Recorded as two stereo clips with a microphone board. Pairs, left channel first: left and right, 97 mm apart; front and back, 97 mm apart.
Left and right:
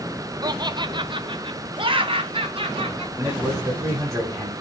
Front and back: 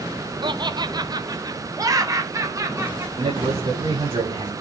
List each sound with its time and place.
0.4 s laughter: 140° right, 0.7 m; by 3.0 s 120° right, 2.0 m
3.1 s a man speaking: 150° right, 6 m